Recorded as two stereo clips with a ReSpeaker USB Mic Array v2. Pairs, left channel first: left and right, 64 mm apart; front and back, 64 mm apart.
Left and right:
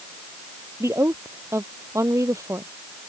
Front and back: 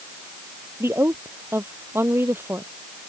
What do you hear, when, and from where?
0.8 s a woman speaking: 130° right